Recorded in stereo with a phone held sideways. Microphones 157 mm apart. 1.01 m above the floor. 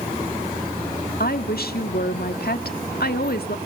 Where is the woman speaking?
75° left (ahead or behind), 1.8 m.